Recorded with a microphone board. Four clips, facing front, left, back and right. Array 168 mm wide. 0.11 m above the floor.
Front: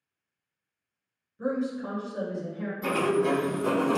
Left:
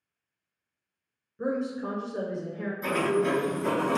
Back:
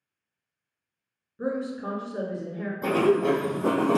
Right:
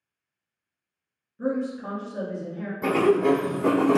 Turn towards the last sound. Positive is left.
turn(degrees=-125)